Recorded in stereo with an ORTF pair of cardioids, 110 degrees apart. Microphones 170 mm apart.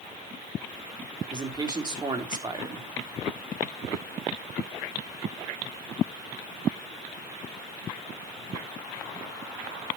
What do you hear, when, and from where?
1.3 s a man speaking: 25° right, 3.5 m